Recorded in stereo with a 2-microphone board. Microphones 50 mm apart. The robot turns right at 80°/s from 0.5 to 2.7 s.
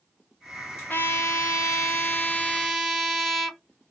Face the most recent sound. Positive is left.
turn(degrees=180)